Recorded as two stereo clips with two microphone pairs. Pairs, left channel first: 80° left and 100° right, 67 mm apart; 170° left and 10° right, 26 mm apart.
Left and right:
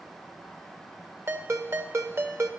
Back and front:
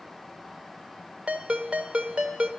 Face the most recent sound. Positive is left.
turn(degrees=-45)